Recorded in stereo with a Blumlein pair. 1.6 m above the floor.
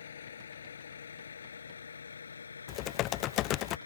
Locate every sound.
0.0 s a vehicle: 65° left; by 3.9 s 75° left
2.7 s typing on a keyboard: 35° left